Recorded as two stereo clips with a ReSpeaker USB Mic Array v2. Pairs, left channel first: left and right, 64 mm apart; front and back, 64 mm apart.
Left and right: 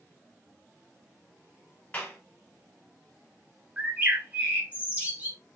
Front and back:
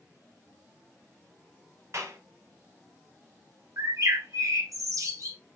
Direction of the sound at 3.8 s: 155° right.